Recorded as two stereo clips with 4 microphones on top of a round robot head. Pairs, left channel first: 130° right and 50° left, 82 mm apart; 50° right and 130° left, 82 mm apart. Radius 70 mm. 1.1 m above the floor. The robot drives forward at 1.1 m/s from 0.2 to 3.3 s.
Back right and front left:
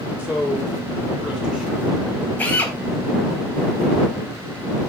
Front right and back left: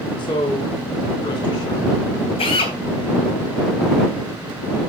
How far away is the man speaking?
About 4 m.